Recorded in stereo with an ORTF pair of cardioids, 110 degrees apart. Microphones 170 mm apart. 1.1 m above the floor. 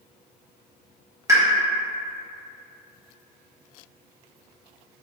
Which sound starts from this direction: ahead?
A pop, at 1.3 s.